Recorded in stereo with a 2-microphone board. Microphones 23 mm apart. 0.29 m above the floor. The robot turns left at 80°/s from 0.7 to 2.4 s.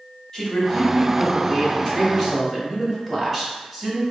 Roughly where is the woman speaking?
Behind left.